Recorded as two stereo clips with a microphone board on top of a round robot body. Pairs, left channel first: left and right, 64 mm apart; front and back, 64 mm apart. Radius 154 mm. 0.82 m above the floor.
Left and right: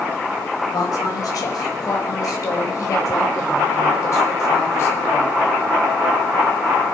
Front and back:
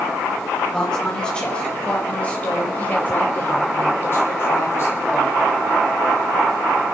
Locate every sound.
0.7 s a woman speaking: 80° left, 4.5 m; by 5.3 s 40° left, 4.5 m